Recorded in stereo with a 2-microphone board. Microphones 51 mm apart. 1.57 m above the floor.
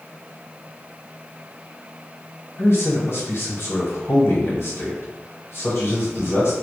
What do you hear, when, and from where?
2.6 s a man speaking: 55° left (ahead or behind), 1.1 m